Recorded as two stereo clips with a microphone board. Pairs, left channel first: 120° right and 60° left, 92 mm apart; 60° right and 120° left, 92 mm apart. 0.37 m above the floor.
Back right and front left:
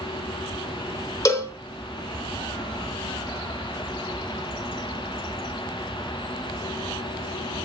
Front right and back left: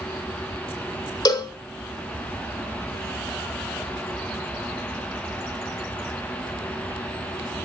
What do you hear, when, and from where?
1.2 s a cowbell: 75° right, 0.8 m